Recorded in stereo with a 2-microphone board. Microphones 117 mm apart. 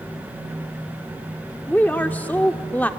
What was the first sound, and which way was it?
A woman speaking, 10° left (ahead or behind).